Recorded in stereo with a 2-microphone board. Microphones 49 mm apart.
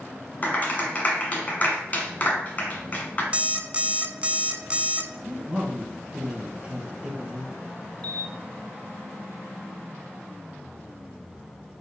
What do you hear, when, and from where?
0.4 s a clap: 35° left (ahead or behind), 1.5 m
3.3 s an alarm clock: 30° right (ahead or behind), 0.5 m
5.2 s a man speaking: 25° right (ahead or behind), 1.9 m
8.0 s a camera shutter: 30° left (ahead or behind), 0.9 m